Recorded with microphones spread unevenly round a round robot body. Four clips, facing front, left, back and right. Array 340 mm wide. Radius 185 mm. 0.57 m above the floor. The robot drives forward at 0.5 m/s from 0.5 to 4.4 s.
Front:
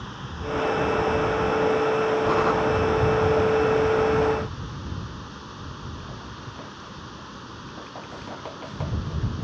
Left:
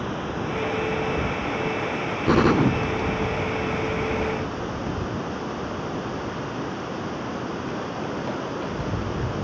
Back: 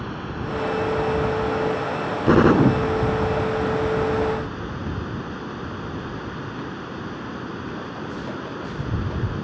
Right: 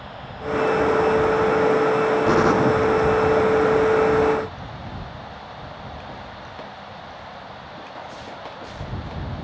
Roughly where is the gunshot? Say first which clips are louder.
Left 2 dB, back 5 dB; behind.